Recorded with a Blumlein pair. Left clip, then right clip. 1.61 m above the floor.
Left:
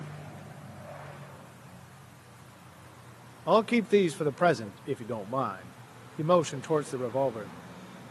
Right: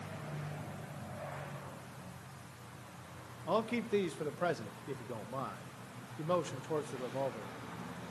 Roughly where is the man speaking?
Ahead left.